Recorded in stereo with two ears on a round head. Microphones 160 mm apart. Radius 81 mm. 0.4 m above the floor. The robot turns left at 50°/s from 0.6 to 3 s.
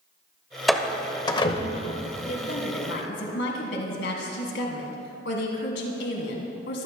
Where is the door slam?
Centre (ahead or behind), 1.2 m; by 2.0 s 50° left (ahead or behind), 1.2 m.